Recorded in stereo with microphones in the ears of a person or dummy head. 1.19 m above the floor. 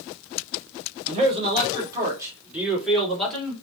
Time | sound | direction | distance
1.1 | a man speaking | 35° right (ahead or behind) | 2 m